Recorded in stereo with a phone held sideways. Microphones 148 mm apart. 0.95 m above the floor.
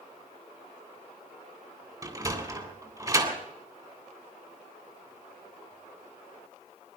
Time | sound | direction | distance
2.0 | a sliding door | 25° right (ahead or behind) | 3 m